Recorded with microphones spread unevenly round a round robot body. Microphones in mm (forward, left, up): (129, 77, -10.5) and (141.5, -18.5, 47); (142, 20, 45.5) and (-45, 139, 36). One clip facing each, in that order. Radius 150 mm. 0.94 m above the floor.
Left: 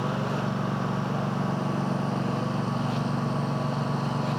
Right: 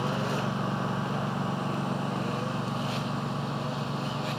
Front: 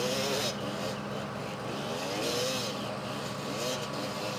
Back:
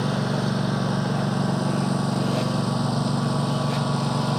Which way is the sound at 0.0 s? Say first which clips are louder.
Left 1 dB, back 6 dB; 175° right.